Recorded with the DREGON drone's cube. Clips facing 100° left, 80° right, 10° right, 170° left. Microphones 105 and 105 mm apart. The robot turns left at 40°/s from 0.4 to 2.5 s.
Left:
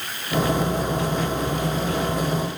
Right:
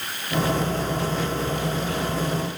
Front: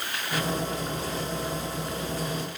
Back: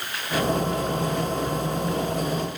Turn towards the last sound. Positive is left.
No sound to turn to.